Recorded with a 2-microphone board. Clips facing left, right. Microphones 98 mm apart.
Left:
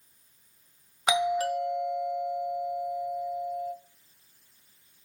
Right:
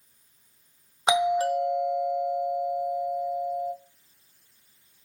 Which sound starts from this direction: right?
A doorbell, at 1.1 s.